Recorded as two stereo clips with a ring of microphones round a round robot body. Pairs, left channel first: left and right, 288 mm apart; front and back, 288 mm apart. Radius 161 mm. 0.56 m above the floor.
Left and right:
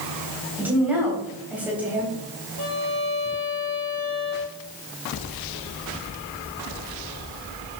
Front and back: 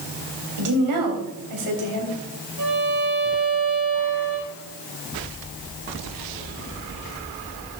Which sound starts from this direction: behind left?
A violin, at 2.6 s.